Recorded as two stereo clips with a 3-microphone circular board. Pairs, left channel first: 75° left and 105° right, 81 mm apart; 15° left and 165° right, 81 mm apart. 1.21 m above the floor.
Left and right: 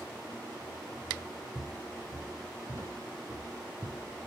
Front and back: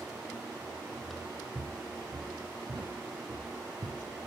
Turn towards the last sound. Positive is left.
turn(degrees=-165)